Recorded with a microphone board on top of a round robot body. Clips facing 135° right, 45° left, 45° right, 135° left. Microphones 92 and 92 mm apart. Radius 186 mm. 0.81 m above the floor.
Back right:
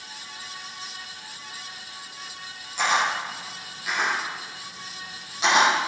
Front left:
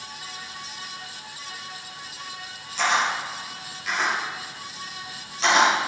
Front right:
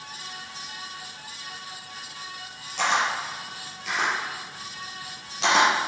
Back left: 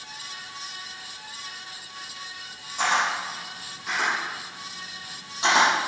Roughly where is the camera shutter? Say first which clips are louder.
Even, even; ahead right.